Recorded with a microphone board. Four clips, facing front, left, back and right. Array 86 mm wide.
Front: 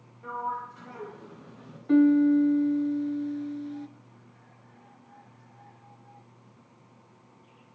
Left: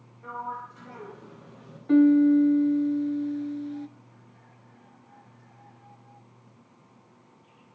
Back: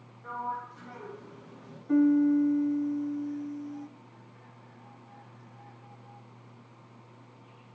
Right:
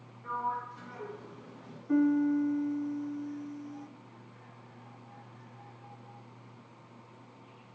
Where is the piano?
50° left, 0.8 m.